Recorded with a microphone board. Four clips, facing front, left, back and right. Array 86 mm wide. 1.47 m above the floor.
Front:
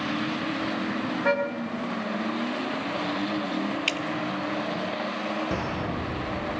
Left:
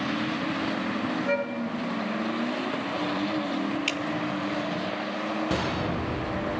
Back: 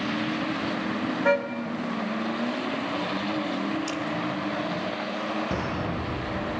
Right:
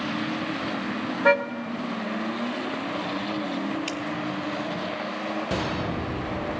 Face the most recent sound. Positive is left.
turn(degrees=30)